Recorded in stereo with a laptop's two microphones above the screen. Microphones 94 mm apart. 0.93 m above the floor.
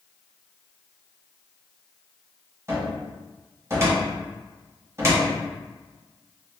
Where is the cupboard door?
30° right (ahead or behind), 0.9 m.